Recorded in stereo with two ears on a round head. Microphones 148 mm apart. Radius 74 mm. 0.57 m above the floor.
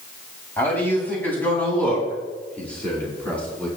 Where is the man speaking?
10° left (ahead or behind), 4 m.